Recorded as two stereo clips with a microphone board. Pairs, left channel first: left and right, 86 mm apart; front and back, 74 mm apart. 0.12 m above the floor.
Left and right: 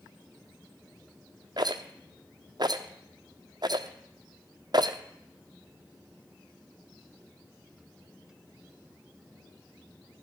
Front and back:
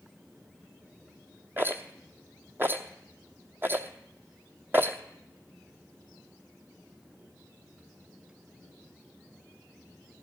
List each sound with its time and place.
1.6 s a rattle: 120° right, 0.7 m